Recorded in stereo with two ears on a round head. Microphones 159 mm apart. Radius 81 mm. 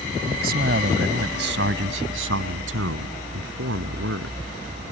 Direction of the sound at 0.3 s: 50° right (ahead or behind).